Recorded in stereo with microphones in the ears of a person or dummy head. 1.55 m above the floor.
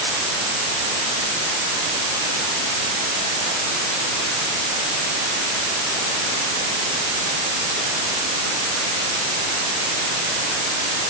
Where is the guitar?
I don't hear a guitar.